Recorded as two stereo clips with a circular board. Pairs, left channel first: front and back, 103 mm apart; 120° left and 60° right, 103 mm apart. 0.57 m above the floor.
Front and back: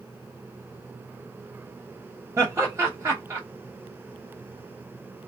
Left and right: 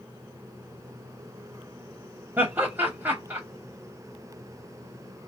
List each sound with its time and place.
2.4 s laughter: 125° right, 0.9 m